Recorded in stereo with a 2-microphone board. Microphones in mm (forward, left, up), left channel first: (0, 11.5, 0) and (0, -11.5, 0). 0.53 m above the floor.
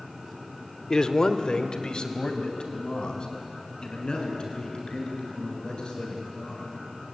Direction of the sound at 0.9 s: 35° left (ahead or behind).